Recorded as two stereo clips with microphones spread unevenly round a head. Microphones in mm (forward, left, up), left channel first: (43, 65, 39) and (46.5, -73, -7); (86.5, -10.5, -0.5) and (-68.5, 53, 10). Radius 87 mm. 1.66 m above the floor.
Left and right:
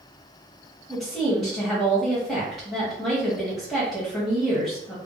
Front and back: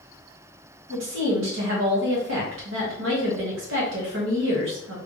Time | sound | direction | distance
0.9 | a woman speaking | straight behind | 1.6 m